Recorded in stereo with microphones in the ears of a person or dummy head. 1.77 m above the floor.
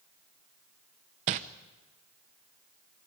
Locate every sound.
1.3 s crumpling: 40° right (ahead or behind), 0.8 m